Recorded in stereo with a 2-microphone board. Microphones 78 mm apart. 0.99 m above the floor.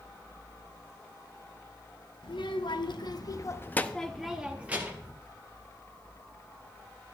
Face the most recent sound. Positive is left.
turn(degrees=-25)  # may be behind; listen again after turning